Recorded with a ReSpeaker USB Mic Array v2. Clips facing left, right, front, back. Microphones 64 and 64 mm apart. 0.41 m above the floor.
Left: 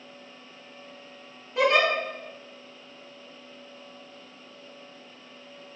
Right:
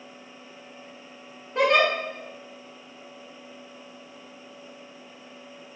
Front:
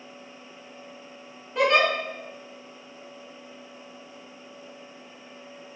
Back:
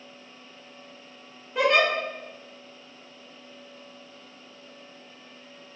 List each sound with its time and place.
1.6 s a giggle: 90° right, 1.6 m